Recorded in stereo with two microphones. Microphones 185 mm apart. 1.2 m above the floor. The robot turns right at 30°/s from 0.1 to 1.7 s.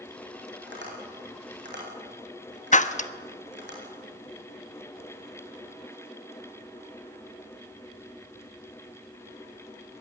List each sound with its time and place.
0.7 s tapping: 75° right (ahead or behind), 8.5 m
2.7 s breaking glass: 40° left (ahead or behind), 1.0 m